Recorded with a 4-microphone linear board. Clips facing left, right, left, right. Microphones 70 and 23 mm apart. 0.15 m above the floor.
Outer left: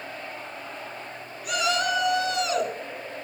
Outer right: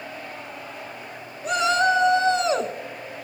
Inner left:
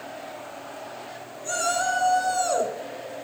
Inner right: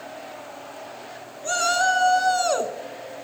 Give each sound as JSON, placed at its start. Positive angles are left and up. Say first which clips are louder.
{"t": 1.4, "sound": "a shout", "louder": "outer right 5 dB, inner right 4 dB", "side_deg": -35, "distance_m": 1.4}